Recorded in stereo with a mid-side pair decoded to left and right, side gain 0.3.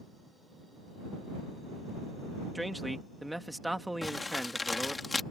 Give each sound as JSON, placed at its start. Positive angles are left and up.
{"t": 2.5, "sound": "a man speaking", "azimuth_deg": -10}
{"t": 4.0, "sound": "crumpling", "azimuth_deg": 35}